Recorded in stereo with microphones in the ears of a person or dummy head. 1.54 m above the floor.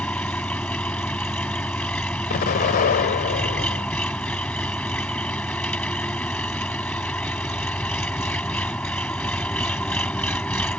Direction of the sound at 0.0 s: 5° left (ahead or behind).